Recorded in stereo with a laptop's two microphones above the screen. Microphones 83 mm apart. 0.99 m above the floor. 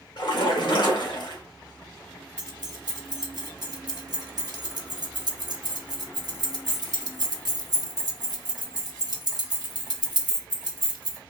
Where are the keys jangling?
55° right (ahead or behind), 0.9 m.